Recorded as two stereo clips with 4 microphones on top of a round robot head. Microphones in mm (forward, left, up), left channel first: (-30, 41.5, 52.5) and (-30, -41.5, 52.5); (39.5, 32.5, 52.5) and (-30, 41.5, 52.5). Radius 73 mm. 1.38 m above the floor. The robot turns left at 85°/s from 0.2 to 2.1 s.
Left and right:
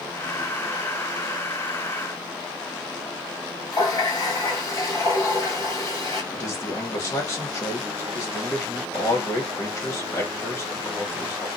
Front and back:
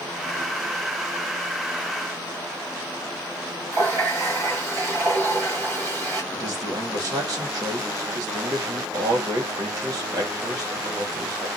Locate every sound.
3.7 s a running tap: 135° left, 1.4 m
6.3 s a man speaking: 145° left, 1.5 m